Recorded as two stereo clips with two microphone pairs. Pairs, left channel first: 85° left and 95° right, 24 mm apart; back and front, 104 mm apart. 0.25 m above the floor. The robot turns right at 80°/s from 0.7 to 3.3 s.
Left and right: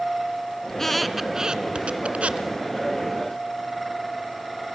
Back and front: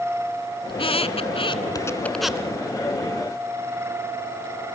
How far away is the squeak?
About 1.5 m.